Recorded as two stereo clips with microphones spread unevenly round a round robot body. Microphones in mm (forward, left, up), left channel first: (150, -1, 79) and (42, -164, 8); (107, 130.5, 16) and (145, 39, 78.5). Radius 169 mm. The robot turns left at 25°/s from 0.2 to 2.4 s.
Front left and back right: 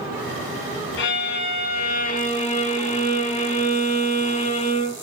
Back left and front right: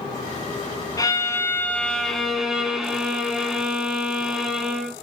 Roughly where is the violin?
Ahead left.